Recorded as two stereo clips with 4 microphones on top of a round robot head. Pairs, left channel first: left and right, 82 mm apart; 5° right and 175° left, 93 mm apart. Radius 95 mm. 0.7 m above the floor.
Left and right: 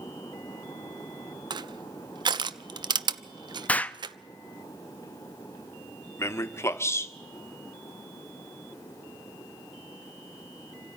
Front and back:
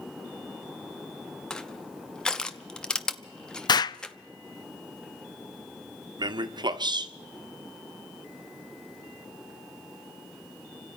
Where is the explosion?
20° left, 0.6 m.